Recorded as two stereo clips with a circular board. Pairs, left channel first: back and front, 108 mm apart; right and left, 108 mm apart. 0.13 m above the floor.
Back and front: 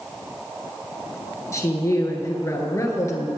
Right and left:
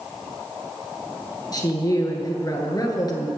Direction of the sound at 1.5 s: 130° right.